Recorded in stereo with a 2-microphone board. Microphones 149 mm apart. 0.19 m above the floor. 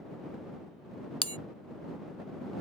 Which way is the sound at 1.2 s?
40° left (ahead or behind).